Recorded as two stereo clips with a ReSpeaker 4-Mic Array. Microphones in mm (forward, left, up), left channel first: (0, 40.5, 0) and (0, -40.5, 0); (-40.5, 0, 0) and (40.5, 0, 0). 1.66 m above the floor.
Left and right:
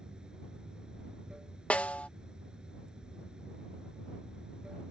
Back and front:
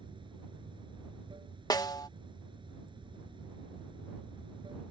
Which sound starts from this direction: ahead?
Running water, at 0.0 s.